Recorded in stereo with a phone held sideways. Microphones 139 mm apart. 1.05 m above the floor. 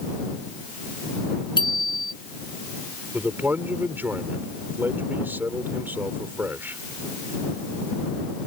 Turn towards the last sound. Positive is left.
turn(degrees=-15)  # may be behind; listen again after turning